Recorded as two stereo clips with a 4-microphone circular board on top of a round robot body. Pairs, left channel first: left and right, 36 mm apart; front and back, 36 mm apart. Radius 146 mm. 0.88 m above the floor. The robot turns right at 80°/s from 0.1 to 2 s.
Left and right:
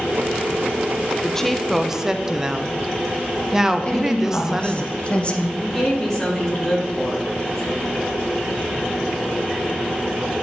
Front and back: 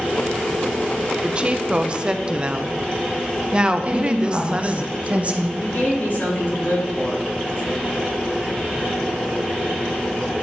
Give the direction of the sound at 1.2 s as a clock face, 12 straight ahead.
7 o'clock.